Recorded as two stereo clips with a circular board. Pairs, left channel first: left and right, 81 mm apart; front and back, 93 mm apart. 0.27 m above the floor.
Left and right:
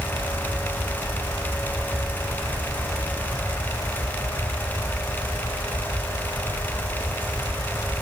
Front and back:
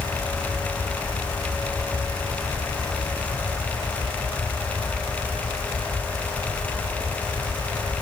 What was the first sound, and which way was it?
Only background noise.